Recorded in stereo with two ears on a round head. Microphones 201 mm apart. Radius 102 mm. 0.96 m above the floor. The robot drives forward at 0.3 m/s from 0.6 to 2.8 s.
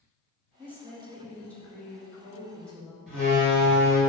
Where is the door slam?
5° left (ahead or behind), 1.7 m.